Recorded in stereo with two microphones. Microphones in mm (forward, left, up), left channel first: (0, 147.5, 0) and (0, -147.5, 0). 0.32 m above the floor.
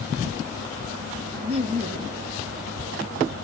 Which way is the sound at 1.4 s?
20° right (ahead or behind).